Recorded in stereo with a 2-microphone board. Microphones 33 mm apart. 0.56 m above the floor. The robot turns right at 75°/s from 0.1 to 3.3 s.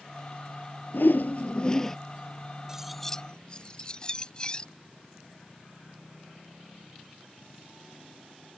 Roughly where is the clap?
I don't hear a clap.